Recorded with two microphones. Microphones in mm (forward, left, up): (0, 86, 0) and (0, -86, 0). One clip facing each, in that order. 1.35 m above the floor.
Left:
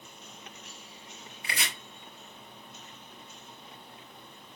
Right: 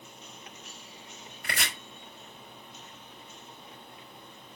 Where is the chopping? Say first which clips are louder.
Right 2 dB; 55° right (ahead or behind), 5 m.